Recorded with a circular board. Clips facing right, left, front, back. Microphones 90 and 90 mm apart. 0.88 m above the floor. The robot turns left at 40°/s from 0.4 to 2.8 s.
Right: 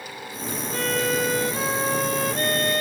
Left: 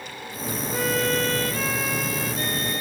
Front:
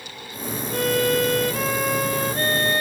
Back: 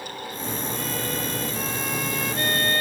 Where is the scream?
I don't hear a scream.